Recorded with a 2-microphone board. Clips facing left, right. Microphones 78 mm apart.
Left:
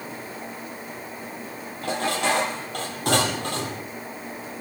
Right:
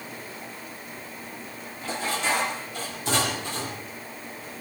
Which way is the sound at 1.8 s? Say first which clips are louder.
Left 4 dB; 65° left (ahead or behind).